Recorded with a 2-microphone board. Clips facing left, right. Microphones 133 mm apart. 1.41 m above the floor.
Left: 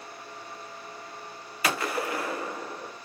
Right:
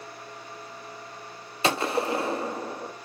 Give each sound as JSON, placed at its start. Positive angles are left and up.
{"t": 1.6, "sound": "a gunshot", "side_deg": -25, "distance_m": 0.6}